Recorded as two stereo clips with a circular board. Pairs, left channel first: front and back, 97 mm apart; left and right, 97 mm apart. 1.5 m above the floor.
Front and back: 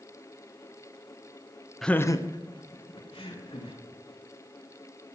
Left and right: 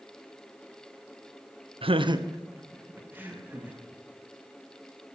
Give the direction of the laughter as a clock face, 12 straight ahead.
3 o'clock.